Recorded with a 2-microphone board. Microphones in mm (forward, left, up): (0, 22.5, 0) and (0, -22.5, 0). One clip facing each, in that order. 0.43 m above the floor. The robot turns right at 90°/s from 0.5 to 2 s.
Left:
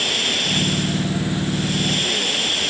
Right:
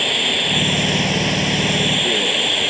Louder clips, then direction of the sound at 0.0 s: Right 3 dB; 160° right.